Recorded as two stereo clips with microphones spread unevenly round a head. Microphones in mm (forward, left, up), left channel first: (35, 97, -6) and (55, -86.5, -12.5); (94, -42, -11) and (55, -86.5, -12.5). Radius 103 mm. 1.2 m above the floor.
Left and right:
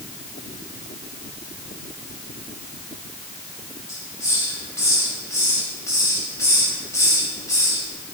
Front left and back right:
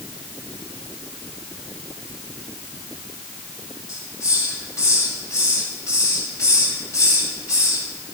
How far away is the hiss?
About 6 m.